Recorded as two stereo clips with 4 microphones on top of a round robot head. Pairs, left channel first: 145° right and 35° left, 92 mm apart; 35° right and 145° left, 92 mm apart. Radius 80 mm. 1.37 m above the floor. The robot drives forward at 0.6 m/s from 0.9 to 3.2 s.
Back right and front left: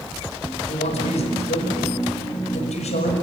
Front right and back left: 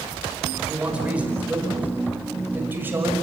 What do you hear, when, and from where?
0.7 s a man speaking: 135° right, 5 m; by 3.1 s 145° right, 6 m